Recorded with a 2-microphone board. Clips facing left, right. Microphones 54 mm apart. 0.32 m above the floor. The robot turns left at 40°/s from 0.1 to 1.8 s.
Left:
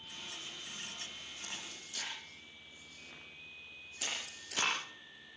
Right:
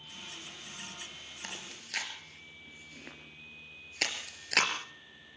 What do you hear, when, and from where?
1.4 s chewing: 75° right (ahead or behind), 4.5 m; by 4.7 s 80° right, 4.5 m